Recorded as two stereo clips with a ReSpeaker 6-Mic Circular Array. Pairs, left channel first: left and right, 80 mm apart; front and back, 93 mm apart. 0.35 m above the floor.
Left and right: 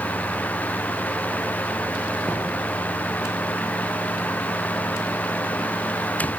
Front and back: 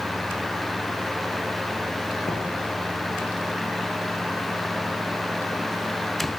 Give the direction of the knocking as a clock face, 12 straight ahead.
12 o'clock.